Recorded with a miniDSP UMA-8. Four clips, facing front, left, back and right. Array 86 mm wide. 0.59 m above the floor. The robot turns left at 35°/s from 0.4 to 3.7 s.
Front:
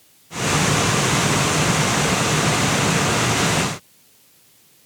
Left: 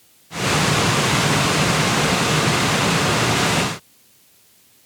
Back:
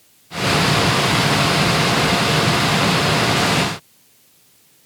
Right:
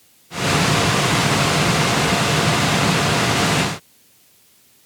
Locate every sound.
Only background noise.